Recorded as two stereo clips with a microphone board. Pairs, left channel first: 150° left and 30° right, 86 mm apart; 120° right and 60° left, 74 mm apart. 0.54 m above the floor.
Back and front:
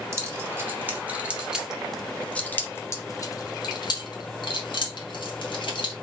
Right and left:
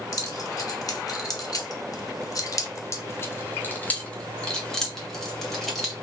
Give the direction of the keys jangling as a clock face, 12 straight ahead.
3 o'clock.